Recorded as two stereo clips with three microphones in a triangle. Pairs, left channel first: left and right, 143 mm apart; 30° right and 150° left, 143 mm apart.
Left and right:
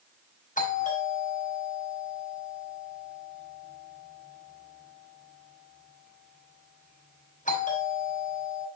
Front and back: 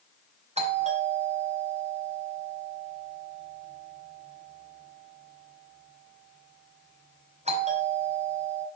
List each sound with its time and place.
0.6 s a doorbell: 110° left, 5.5 m